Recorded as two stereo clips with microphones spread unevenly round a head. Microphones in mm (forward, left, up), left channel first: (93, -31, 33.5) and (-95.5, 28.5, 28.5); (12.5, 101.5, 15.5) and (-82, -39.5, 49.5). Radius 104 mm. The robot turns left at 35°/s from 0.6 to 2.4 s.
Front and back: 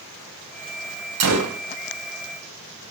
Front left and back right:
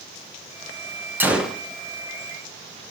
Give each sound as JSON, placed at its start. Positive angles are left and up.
{"t": 1.2, "sound": "a gunshot", "azimuth_deg": 160, "distance_m": 0.7}